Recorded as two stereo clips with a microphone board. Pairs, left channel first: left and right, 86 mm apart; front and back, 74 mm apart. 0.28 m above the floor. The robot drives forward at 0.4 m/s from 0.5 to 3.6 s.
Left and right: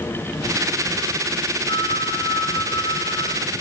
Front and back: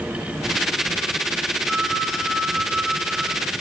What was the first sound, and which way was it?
A phone ringing, 90° left.